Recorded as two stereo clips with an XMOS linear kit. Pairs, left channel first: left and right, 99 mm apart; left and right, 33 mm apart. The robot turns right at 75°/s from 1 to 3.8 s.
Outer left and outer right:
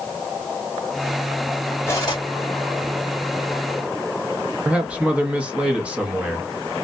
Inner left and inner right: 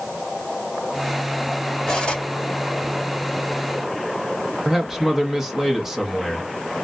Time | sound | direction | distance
1.9 | cutlery clinking | 25° left (ahead or behind) | 1.4 m
4.7 | a man speaking | 15° right (ahead or behind) | 1.0 m